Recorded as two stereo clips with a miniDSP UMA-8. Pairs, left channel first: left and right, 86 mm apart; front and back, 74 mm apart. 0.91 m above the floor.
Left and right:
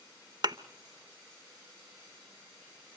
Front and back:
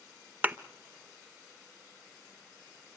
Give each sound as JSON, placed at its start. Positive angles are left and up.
{"t": 0.4, "sound": "a thud", "azimuth_deg": -115, "distance_m": 0.9}